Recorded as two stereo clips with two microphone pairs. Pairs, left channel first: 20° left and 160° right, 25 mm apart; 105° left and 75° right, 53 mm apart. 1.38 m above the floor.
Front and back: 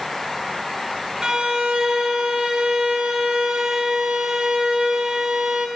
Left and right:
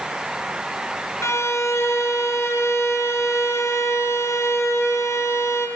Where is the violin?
135° left, 0.6 m.